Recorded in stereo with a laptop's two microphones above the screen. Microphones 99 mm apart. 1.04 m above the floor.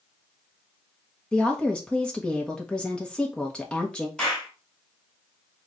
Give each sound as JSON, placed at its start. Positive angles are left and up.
{"t": 1.3, "sound": "a woman speaking", "side_deg": 10, "distance_m": 1.3}
{"t": 4.2, "sound": "a clap", "side_deg": 5, "distance_m": 2.5}